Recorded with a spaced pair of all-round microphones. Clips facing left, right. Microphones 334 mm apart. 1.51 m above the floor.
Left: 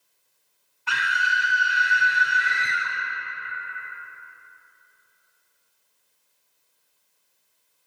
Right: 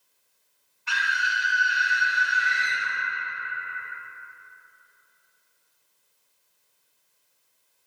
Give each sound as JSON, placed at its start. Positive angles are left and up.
{"t": 0.9, "sound": "a scream", "side_deg": 65, "distance_m": 0.7}